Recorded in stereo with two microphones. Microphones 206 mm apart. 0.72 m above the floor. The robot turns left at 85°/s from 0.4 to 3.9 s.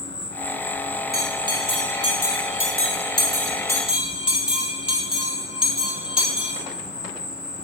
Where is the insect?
110° right, 3 m; by 7.7 s 50° right, 3 m.